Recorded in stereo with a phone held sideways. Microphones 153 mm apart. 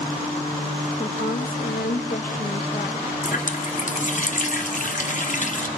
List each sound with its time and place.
1.0 s a woman speaking: 75° left (ahead or behind), 1.4 m
3.2 s a running tap: 55° left (ahead or behind), 1.2 m